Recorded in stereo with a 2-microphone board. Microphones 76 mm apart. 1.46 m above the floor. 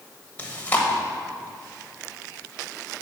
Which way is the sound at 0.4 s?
20° left (ahead or behind).